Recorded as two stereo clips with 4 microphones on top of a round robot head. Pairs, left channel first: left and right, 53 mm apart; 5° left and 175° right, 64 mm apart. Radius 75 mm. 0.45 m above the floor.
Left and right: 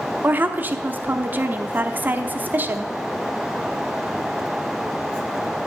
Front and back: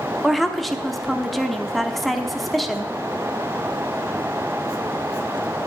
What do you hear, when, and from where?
0.2 s a woman speaking: 80° right, 0.8 m